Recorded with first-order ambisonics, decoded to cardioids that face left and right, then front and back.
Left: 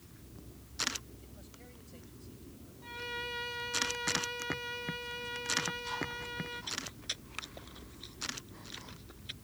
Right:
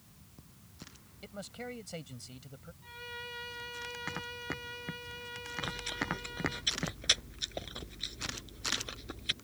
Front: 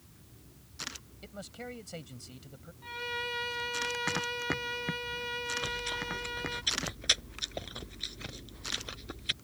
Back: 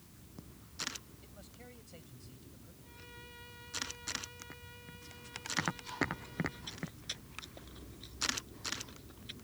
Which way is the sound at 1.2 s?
50° right.